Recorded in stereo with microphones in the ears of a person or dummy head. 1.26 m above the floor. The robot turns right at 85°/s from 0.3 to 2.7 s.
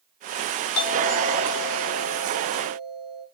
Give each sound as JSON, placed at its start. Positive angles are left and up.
{"t": 0.7, "sound": "a doorbell", "azimuth_deg": 100, "distance_m": 7.5}